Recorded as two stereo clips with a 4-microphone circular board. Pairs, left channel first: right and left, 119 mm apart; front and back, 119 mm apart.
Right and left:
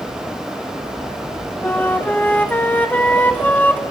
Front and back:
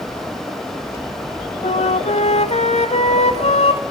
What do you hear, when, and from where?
1.6 s a flute: 15° right, 0.7 m